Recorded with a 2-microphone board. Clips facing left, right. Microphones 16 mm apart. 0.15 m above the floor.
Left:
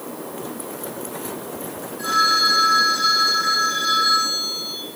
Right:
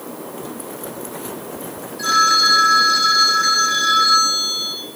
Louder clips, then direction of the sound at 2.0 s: Right 3 dB; 65° right (ahead or behind).